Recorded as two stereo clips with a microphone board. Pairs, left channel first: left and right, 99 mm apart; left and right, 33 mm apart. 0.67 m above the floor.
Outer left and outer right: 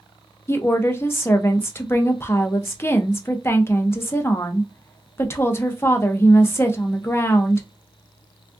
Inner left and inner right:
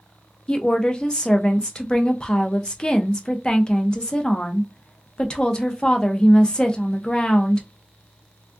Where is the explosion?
I don't hear an explosion.